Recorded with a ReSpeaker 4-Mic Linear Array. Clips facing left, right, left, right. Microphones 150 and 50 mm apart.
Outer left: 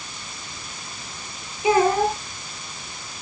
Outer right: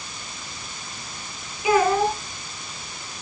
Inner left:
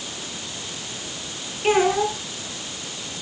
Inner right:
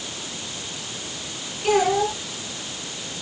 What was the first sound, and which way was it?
A child speaking, 30° left (ahead or behind).